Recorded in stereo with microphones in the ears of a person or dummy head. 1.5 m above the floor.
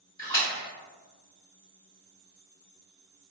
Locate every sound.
0.2 s a splash: 25° left (ahead or behind), 1.9 m